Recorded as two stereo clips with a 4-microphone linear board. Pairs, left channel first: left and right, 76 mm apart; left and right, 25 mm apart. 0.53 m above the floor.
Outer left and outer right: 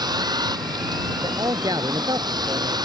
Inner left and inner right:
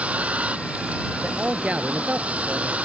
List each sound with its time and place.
0.0 s a vehicle: 65° right (ahead or behind)
1.2 s a man speaking: 55° right (ahead or behind)